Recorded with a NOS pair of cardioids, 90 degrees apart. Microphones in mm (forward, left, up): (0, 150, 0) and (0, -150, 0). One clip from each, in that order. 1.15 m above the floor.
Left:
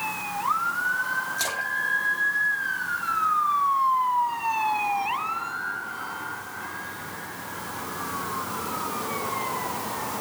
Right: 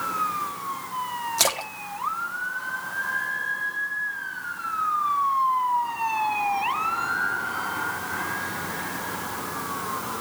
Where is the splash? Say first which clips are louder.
Right 1 dB; 60° right, 1.8 m.